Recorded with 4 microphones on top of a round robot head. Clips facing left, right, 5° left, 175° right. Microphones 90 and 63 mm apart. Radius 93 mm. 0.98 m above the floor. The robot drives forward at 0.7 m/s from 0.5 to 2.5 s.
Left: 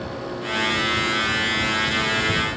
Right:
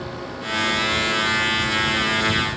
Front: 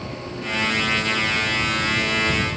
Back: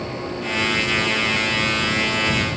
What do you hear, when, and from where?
Only background noise.